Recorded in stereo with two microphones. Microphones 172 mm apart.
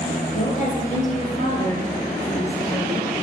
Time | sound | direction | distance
0.3 | a woman speaking | 45° left (ahead or behind) | 3 m